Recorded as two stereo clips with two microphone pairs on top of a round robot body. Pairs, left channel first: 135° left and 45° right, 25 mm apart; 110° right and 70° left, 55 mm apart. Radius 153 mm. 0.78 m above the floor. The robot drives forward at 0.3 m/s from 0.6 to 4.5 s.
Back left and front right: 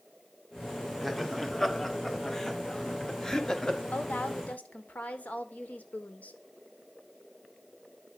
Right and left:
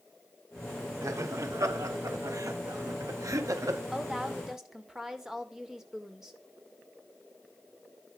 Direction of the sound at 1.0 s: 50° left.